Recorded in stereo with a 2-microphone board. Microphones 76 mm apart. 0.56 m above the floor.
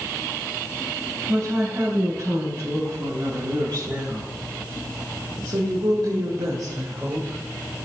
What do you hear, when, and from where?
1.3 s a woman speaking: 60° right (ahead or behind), 4.5 m; by 7.4 s 50° right (ahead or behind), 2.5 m